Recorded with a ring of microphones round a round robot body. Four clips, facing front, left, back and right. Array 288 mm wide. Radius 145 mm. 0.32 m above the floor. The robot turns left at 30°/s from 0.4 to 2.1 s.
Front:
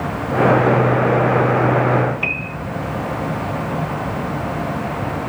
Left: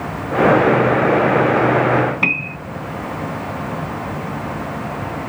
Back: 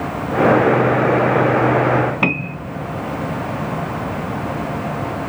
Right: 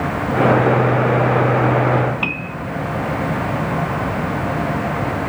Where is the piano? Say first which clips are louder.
Left 1 dB, back 6 dB; 170° left.